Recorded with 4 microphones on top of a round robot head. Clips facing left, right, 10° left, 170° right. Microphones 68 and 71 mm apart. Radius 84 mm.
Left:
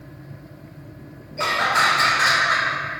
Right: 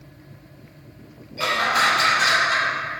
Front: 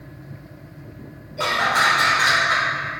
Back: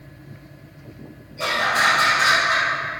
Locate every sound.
1.4 s laughter: 30° left, 2.5 m; by 2.7 s 45° left, 2.5 m